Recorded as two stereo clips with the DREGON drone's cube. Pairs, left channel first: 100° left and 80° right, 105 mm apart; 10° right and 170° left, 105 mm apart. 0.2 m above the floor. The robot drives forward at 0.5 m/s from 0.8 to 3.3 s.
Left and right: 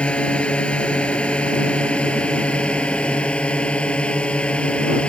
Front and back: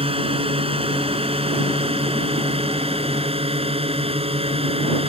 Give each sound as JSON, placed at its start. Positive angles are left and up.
{"t": 0.0, "sound": "a drone", "azimuth_deg": 180}